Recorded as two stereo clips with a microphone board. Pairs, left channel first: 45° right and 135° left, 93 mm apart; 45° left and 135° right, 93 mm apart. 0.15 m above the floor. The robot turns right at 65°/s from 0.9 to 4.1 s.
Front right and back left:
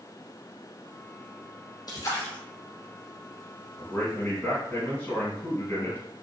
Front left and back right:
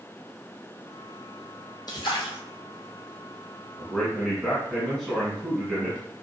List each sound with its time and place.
1.9 s a splash: straight ahead, 0.9 m; by 2.4 s 35° left, 0.9 m
3.8 s a man speaking: 60° right, 1.4 m; by 6.0 s 40° right, 1.4 m